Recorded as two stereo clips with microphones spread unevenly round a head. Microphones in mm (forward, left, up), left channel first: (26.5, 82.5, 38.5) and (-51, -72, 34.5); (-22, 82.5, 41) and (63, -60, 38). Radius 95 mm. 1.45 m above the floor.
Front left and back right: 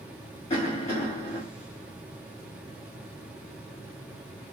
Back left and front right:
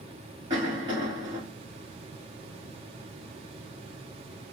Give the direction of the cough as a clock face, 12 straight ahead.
12 o'clock.